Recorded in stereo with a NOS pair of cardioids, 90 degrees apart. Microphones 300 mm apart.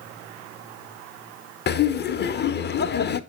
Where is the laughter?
35° left, 0.7 m.